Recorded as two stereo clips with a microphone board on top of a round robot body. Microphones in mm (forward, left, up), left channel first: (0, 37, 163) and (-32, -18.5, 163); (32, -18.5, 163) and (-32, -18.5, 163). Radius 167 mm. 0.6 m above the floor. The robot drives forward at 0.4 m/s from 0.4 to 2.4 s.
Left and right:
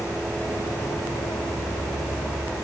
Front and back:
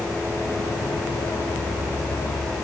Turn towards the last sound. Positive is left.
No sound to turn to.